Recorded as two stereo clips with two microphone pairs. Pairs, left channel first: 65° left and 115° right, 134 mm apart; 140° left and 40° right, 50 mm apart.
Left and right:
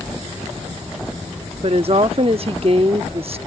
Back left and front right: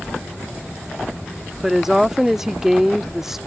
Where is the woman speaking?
125° right.